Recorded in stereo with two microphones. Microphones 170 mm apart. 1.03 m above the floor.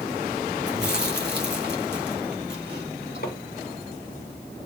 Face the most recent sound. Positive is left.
turn(degrees=65)  # may be behind; listen again after turning